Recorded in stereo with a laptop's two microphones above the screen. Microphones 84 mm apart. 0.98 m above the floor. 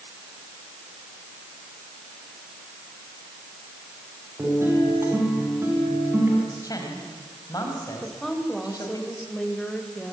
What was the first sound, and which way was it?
A guitar, 30° right (ahead or behind).